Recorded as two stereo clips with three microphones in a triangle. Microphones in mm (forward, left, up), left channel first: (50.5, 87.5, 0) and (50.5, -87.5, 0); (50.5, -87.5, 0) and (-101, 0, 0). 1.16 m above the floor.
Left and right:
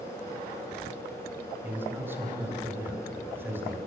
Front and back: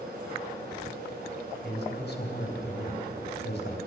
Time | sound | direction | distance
1.6 | a man speaking | 15° right | 4.5 m